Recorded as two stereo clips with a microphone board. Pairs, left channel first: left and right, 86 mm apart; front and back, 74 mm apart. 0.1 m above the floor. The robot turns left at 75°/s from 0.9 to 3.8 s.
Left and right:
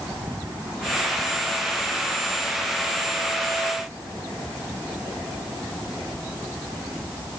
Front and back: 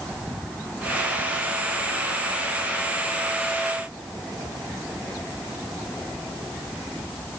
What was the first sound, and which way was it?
Only background noise.